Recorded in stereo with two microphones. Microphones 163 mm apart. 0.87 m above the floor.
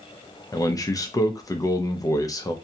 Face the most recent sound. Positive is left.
turn(degrees=20)  # may be behind; listen again after turning